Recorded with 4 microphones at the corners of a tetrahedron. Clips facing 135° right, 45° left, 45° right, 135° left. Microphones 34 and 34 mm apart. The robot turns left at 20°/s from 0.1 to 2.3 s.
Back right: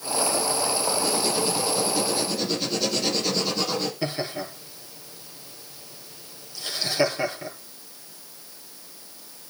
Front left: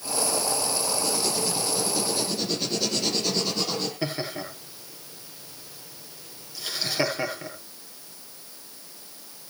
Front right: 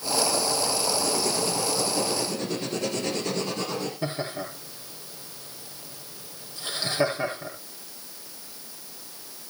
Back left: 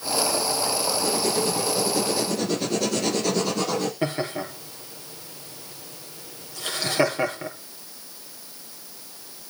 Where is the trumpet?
I don't hear a trumpet.